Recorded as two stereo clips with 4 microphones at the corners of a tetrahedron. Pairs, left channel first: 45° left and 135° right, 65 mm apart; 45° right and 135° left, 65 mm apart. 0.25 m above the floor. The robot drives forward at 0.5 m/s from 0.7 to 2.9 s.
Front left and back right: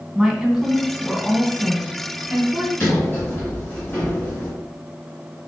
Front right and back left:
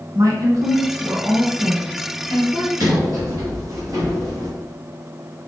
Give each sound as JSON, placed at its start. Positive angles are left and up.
{"t": 0.1, "sound": "a woman speaking", "azimuth_deg": 135, "distance_m": 2.0}
{"t": 2.8, "sound": "a sliding door", "azimuth_deg": 105, "distance_m": 3.0}